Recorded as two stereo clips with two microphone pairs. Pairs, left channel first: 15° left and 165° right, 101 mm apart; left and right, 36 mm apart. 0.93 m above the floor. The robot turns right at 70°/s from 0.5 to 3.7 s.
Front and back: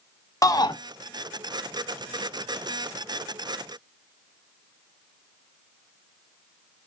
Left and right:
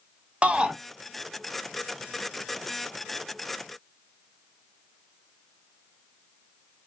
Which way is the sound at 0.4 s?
40° right.